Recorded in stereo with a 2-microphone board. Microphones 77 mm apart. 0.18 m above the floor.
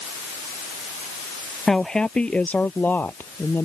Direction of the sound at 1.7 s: 5° left (ahead or behind).